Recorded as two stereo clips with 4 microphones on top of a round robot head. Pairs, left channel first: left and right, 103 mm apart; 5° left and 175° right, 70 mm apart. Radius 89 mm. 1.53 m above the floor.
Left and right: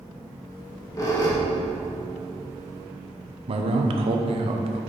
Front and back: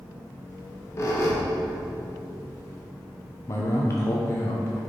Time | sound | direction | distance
0.5 | a squeak | 40° left | 1.0 m
3.5 | a man speaking | 55° right | 0.8 m